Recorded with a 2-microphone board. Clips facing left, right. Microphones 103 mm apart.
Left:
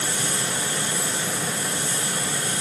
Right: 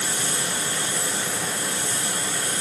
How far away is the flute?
I don't hear a flute.